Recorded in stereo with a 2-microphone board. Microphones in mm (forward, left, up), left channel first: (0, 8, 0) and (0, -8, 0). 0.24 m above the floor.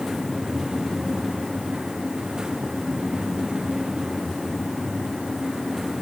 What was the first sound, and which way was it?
Only background noise.